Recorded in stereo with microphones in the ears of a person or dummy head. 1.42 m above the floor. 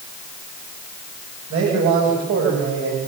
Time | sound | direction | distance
1.5 | a man speaking | 70° right (ahead or behind) | 8 m